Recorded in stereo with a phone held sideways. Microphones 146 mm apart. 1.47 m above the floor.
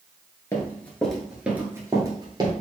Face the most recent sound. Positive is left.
turn(degrees=-35)  # may be behind; listen again after turning